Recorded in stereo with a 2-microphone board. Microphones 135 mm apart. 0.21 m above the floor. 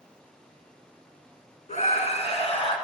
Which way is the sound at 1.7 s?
60° left (ahead or behind).